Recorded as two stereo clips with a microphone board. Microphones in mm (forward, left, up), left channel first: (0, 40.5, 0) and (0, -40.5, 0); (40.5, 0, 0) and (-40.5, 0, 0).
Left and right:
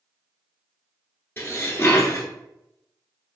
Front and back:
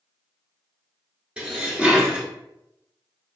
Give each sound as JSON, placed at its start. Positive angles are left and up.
{"t": 1.4, "sound": "dishes clattering", "azimuth_deg": 115, "distance_m": 1.1}